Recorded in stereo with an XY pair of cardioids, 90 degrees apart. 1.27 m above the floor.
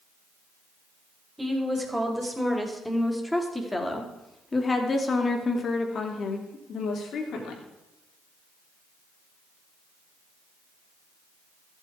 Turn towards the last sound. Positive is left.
turn(degrees=80)